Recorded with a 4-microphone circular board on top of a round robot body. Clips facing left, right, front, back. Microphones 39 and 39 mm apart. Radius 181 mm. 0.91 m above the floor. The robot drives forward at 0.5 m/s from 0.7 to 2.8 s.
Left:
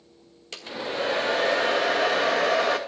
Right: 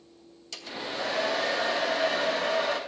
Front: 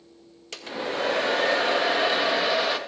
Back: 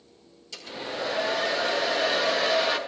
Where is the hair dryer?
40° left, 1.4 m; by 2.8 s 90° left, 0.9 m.